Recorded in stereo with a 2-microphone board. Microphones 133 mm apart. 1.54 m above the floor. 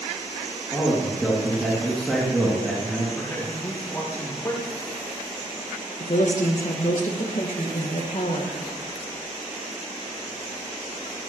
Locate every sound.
0.7 s a man speaking: centre (ahead or behind), 2.5 m
3.1 s a man speaking: 20° left (ahead or behind), 5 m
6.0 s a woman speaking: 65° left (ahead or behind), 1.7 m